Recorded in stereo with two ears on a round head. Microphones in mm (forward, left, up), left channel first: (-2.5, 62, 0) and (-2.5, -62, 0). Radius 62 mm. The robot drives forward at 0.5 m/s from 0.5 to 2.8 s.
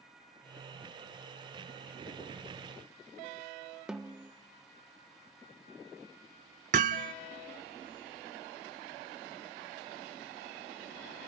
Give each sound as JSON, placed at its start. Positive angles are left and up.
{"t": 3.9, "sound": "a snare drum", "side_deg": -5, "distance_m": 0.9}
{"t": 6.7, "sound": "hammering", "side_deg": -55, "distance_m": 0.7}